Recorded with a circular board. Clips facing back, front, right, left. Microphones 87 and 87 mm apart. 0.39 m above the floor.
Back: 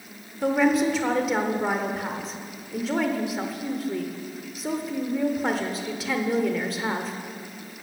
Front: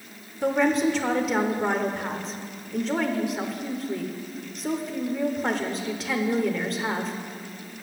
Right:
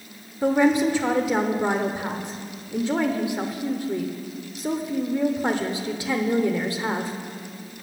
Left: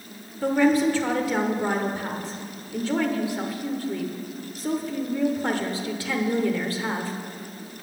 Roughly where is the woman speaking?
Right.